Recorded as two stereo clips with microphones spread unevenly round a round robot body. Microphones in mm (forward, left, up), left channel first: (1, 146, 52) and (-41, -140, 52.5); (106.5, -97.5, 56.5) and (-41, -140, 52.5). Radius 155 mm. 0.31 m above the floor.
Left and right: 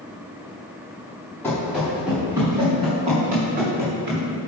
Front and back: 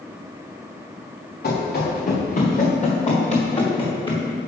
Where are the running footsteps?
Straight ahead, 2.5 m; by 4.2 s 40° right, 3 m.